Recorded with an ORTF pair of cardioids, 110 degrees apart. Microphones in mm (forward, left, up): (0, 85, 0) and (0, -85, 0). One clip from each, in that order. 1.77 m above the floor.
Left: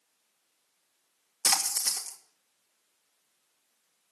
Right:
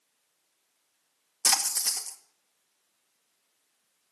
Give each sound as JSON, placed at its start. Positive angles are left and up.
{"t": 1.4, "sound": "a splash", "azimuth_deg": 0, "distance_m": 1.9}